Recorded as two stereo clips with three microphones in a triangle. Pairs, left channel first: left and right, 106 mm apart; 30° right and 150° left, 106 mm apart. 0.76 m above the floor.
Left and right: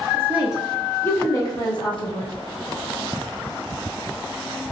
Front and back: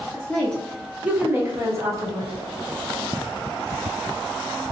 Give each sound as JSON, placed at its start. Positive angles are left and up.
{"t": 0.1, "sound": "a woman speaking", "azimuth_deg": -70, "distance_m": 0.6}